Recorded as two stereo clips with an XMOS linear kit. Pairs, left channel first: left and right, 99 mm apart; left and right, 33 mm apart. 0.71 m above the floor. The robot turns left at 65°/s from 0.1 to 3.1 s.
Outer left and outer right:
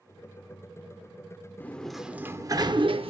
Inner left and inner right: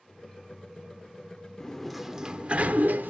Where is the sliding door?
20° left, 0.6 m; by 3.1 s 75° right, 0.6 m.